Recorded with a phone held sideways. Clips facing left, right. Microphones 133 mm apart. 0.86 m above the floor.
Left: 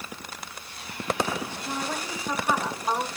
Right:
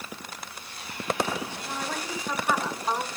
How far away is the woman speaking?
About 3 m.